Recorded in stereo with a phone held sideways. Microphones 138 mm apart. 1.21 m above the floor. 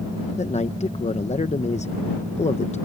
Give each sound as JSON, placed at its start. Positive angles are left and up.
{"t": 0.4, "sound": "a man speaking", "side_deg": 55}